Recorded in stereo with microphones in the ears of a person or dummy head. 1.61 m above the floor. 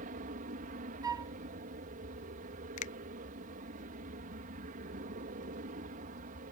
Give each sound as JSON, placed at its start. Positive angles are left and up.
{"t": 0.0, "sound": "an aircraft", "side_deg": -50}
{"t": 1.0, "sound": "a flute", "side_deg": -15}
{"t": 2.8, "sound": "a finger snap", "side_deg": 40}